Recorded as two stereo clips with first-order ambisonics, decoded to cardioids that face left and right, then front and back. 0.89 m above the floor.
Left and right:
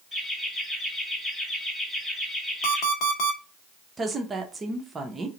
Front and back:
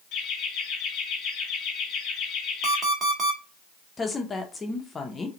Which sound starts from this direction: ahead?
Laughter, at 0.1 s.